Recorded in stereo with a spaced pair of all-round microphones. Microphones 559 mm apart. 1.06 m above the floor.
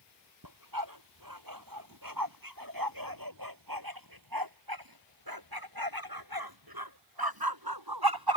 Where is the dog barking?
35° right (ahead or behind); by 8.4 s 45° right (ahead or behind).